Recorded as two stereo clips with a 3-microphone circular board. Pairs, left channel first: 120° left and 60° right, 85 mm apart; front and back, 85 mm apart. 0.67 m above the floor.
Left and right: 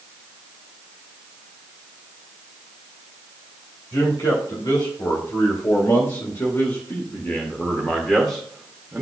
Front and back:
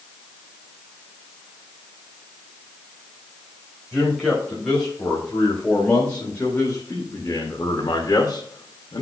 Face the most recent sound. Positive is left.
turn(degrees=20)